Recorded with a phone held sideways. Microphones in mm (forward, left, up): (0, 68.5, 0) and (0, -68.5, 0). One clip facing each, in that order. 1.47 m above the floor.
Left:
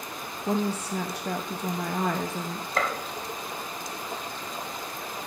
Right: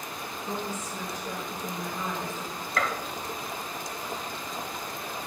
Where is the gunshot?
30° left (ahead or behind), 1.4 m.